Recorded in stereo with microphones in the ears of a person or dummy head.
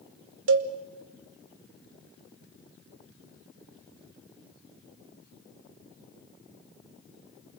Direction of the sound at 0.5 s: 70° right (ahead or behind).